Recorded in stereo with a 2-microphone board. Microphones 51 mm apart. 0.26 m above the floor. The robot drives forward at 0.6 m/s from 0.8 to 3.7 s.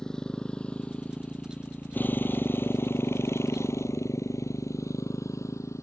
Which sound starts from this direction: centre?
A motorcycle, at 0.0 s.